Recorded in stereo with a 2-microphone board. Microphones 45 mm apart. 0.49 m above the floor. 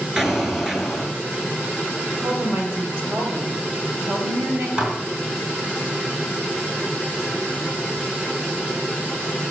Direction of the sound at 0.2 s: 10° right (ahead or behind).